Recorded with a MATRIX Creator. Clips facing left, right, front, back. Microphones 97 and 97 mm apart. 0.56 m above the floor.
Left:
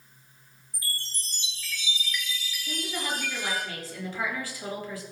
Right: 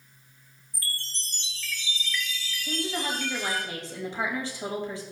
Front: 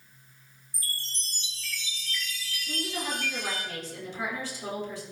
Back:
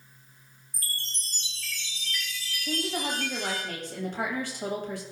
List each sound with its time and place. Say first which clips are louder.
0.7 s a chime: even, back 1 dB; 165° left, 3 m
2.6 s a woman speaking: right 3 dB, back 3 dB; 155° right, 3.5 m